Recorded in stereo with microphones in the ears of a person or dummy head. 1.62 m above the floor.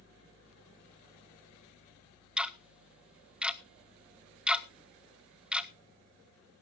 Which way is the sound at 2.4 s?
5° right (ahead or behind).